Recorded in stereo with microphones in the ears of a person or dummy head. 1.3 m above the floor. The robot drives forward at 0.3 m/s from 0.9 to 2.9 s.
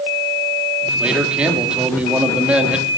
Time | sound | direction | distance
1.0 | a man speaking | 5° right (ahead or behind) | 2.5 m